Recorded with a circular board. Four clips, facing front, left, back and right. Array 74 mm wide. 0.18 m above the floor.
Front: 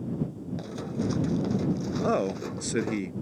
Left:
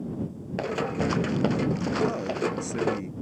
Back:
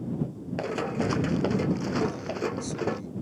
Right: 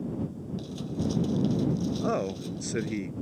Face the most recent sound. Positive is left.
turn(degrees=-15)